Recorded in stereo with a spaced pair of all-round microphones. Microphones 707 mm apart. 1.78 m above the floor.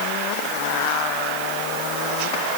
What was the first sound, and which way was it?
Only background noise.